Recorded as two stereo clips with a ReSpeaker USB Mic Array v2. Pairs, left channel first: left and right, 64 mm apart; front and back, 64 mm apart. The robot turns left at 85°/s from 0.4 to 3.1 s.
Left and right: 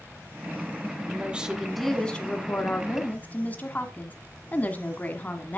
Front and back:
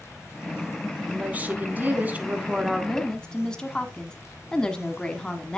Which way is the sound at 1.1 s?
125° right.